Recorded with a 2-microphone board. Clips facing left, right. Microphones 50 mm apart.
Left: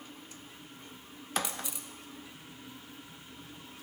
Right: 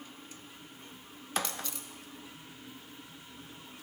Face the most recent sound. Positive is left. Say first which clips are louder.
# even
turn(degrees=15)  # may be behind; listen again after turning